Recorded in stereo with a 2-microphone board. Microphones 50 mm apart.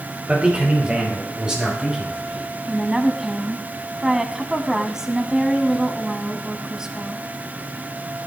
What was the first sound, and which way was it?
A man speaking, 25° right (ahead or behind).